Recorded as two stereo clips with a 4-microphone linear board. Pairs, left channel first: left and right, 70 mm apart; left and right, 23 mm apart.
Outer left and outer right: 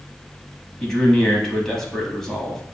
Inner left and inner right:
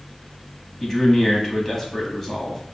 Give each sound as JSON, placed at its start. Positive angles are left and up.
{"t": 0.8, "sound": "a man speaking", "side_deg": 10, "distance_m": 1.0}